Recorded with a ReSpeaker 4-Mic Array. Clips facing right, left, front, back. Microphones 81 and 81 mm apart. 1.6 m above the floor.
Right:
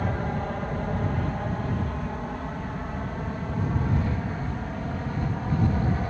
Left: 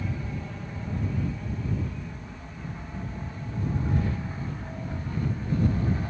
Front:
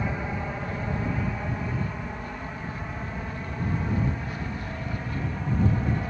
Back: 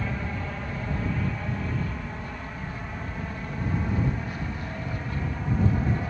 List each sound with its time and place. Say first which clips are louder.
0.0 s an aircraft: right 6 dB, front 2 dB; 75° right; by 6.1 s 90° right